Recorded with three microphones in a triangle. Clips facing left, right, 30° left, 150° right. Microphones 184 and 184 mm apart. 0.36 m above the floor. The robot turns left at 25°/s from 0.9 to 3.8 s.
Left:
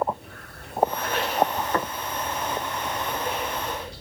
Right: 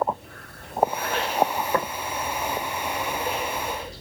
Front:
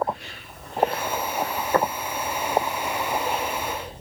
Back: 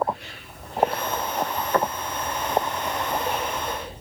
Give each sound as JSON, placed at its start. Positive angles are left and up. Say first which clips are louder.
{"t": 1.7, "sound": "tapping", "louder": "right 1 dB, front 1 dB", "azimuth_deg": -20, "distance_m": 2.0}